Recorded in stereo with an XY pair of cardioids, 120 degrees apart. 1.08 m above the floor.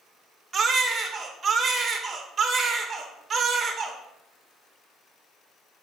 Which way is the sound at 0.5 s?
35° right.